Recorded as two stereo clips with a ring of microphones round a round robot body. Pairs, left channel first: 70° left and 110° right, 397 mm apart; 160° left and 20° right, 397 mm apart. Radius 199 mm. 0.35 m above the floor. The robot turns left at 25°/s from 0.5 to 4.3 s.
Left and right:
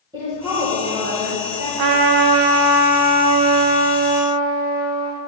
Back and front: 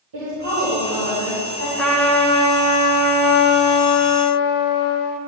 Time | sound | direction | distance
0.1 | a woman speaking | 35° right | 2.0 m
1.8 | a trumpet | 115° right | 0.5 m